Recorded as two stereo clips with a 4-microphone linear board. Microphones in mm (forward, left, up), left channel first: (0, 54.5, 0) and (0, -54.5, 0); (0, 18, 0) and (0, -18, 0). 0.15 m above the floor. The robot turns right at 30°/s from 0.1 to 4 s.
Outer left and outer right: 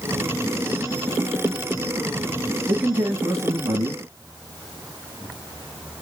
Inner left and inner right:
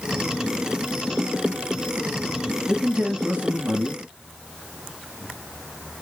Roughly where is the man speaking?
Behind.